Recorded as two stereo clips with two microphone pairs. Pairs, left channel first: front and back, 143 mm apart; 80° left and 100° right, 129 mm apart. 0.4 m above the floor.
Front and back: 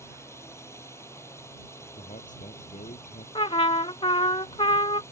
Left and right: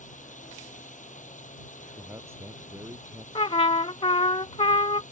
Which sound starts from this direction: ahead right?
A man speaking, at 2.0 s.